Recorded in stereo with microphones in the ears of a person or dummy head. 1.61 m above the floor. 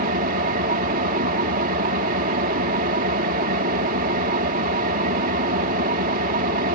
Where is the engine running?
45° right (ahead or behind).